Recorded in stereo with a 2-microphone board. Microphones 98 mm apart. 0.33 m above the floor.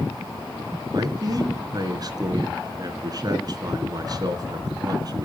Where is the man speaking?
45° right (ahead or behind), 3.5 m.